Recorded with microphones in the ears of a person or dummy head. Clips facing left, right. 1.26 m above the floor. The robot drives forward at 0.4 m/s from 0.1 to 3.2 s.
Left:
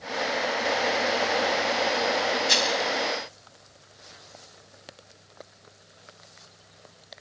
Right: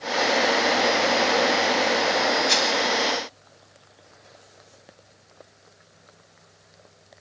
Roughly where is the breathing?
I don't hear breathing.